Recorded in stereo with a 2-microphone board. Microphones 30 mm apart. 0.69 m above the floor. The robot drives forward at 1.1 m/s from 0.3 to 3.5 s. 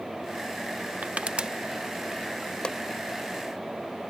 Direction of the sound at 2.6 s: 30° left (ahead or behind).